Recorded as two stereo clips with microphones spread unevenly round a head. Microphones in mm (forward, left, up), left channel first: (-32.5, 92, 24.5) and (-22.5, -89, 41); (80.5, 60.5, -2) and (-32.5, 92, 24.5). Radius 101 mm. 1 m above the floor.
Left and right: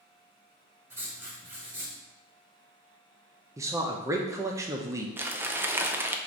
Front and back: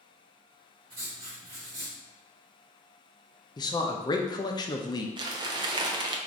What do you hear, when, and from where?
0.9 s writing: 160° right, 1.3 m
3.6 s a man speaking: 15° right, 0.6 m
5.2 s crumpling: 165° right, 0.5 m